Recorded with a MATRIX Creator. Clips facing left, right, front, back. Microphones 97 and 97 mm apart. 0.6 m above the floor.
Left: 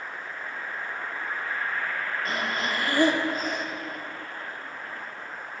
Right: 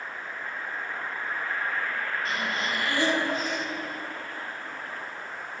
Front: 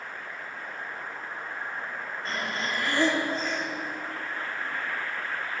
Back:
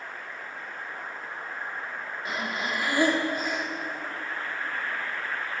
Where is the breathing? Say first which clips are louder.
Left 1 dB, back 1 dB; 105° left, 1.4 m.